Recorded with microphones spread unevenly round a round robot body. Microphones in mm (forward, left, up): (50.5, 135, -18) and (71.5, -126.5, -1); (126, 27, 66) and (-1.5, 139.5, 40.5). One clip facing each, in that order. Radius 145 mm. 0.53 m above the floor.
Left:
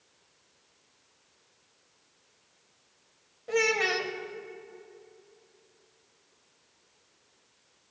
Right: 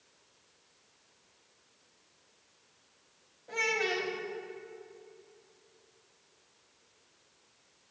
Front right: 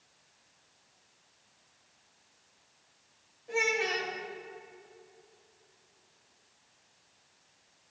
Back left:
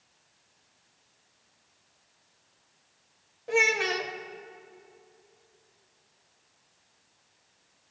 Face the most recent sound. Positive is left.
turn(degrees=130)